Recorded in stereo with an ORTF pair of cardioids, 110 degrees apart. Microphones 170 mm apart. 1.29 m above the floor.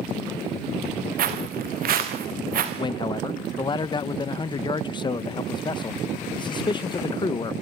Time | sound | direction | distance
1.2 | footsteps | 60° right | 5 m
2.8 | a man speaking | 25° left | 1.0 m